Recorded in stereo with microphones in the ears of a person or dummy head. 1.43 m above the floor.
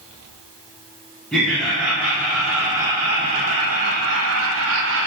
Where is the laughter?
5° left (ahead or behind), 1.5 m; by 5.1 s 60° right (ahead or behind), 0.8 m.